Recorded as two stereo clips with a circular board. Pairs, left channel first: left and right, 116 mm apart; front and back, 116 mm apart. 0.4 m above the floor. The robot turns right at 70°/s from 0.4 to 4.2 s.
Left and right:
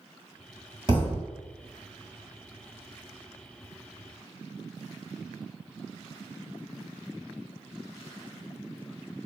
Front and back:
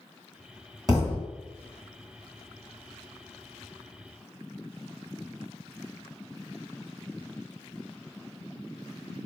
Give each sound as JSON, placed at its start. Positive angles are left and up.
{"t": 0.9, "sound": "a thud", "azimuth_deg": -125, "distance_m": 1.3}